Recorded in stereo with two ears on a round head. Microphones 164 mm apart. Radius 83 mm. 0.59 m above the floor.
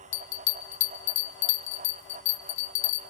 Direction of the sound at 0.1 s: 70° left (ahead or behind).